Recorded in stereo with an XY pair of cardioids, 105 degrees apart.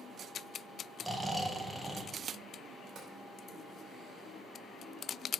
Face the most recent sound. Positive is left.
turn(degrees=-55)